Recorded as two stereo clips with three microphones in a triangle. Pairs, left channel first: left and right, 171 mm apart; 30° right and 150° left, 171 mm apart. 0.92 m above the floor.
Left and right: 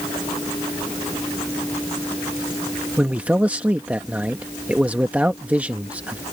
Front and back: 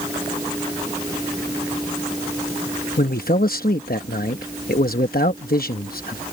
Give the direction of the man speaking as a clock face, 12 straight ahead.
12 o'clock.